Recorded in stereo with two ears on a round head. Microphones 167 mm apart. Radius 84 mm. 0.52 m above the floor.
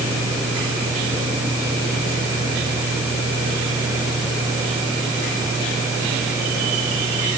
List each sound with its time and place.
Only background noise.